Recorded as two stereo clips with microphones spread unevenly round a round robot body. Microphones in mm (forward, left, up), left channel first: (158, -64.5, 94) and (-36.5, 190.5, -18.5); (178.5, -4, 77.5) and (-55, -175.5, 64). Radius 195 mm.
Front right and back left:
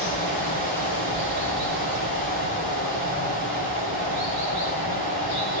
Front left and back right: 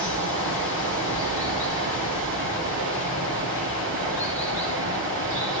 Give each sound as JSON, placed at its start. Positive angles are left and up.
{"t": 0.0, "sound": "running water", "azimuth_deg": 160, "distance_m": 8.5}